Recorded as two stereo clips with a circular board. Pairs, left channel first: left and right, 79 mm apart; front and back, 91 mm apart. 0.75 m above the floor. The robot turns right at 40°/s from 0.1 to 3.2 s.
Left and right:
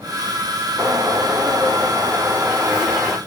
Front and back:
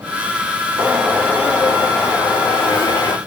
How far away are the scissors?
I don't hear scissors.